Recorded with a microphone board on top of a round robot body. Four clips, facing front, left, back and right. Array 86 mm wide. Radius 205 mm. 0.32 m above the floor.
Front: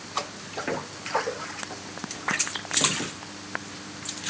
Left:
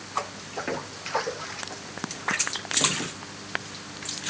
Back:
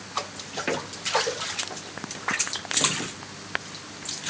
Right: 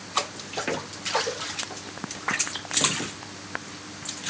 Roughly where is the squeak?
I don't hear a squeak.